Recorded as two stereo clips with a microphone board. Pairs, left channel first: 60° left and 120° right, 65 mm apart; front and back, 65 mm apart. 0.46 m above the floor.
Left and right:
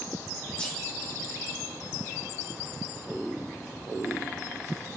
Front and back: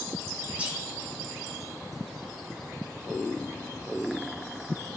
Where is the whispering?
125° left, 0.9 m.